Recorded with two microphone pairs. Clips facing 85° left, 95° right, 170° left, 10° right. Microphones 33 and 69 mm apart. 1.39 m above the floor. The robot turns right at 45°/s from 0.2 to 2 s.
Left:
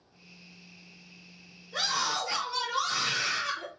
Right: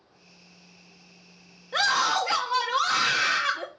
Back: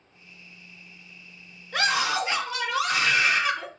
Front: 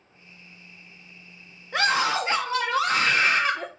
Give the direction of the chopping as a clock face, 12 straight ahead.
No chopping in this recording.